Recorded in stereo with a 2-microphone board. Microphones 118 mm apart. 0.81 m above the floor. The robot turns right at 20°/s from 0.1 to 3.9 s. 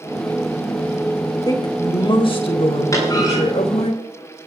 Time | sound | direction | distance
1.4 | a woman speaking | 35° left | 3 m
2.9 | a clunk | 30° left (ahead or behind) | 8 m